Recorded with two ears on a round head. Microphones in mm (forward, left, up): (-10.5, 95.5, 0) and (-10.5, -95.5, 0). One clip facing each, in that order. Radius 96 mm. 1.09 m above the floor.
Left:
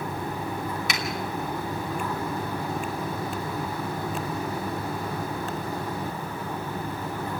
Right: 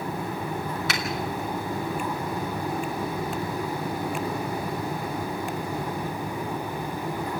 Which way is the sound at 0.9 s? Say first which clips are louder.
Right 1 dB; 15° left (ahead or behind).